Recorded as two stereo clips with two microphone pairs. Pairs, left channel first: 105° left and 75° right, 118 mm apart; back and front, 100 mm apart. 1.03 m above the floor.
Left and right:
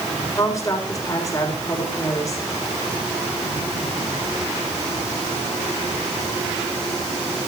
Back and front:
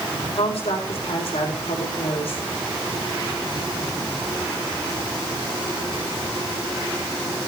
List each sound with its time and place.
0.3 s a woman speaking: 165° left, 3.5 m